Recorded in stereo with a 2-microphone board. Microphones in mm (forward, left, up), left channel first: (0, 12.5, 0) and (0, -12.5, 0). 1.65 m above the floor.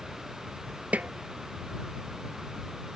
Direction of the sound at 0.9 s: 75° right (ahead or behind).